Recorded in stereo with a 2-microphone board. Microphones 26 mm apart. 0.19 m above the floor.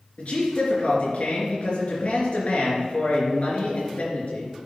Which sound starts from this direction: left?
A man speaking, at 0.2 s.